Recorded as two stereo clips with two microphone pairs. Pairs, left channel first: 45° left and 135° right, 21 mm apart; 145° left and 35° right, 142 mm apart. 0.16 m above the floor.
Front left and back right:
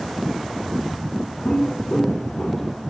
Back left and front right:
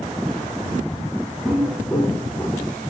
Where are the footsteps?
50° left, 3 m; by 2.7 s 65° left, 4 m.